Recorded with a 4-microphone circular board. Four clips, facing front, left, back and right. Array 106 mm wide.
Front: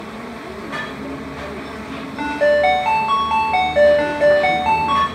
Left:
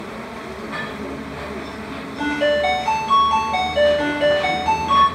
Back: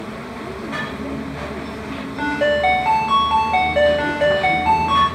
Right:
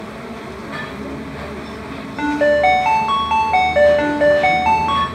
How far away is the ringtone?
About 0.7 m.